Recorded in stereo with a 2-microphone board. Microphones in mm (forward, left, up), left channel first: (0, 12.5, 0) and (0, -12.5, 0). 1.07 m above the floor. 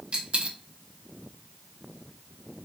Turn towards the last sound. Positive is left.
turn(degrees=-45)  # may be behind; listen again after turning